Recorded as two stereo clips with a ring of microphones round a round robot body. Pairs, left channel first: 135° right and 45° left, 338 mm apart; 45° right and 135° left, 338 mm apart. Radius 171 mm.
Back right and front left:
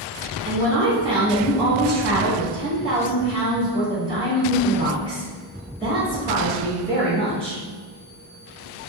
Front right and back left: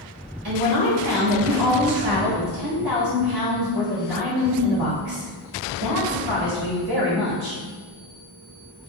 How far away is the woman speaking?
About 1.4 m.